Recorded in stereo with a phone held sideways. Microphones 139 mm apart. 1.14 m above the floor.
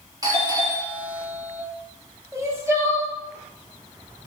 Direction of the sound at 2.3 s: 20° right (ahead or behind).